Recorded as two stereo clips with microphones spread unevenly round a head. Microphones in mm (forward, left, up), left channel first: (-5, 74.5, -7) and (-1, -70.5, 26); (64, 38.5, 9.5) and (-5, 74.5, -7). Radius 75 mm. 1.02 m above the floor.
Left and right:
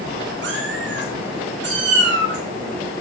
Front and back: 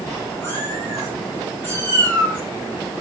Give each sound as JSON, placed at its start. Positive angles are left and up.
{"t": 0.4, "sound": "a cat meowing", "azimuth_deg": -105, "distance_m": 8.0}